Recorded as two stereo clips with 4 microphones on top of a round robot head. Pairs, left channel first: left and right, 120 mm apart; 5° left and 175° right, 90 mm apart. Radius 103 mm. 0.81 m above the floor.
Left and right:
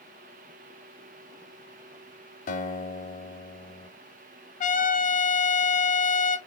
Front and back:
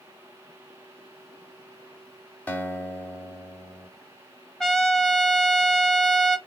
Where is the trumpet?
90° left, 0.7 m.